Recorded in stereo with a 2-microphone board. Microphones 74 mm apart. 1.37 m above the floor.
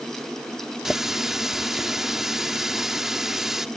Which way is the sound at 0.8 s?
5° right (ahead or behind).